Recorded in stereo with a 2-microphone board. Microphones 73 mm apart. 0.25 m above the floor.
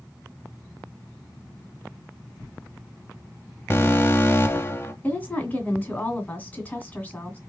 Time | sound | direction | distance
3.7 | an alarm | 35° left (ahead or behind) | 0.8 m
5.0 | a woman speaking | 25° left (ahead or behind) | 1.9 m